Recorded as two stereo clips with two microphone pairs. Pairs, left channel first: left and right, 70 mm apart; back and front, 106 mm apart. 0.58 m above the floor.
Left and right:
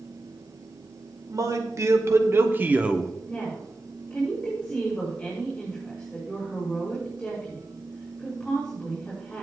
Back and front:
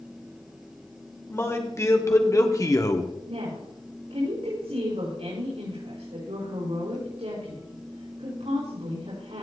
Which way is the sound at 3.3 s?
10° left.